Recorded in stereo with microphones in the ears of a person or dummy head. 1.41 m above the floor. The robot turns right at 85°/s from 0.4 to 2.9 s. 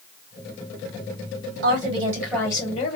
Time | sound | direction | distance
1.6 | a woman speaking | 60° right | 1.6 m